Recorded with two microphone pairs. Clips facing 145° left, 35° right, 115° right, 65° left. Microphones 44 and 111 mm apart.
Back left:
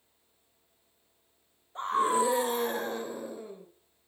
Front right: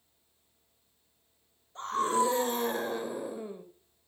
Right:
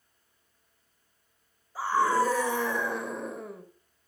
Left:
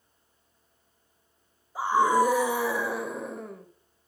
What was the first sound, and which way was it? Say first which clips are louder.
A scream: back left 2 dB, left 3 dB; 110° left.